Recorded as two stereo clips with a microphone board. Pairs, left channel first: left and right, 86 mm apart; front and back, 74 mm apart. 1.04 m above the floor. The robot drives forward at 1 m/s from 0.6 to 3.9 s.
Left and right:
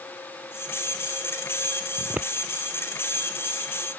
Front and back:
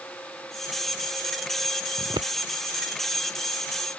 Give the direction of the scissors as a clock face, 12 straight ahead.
5 o'clock.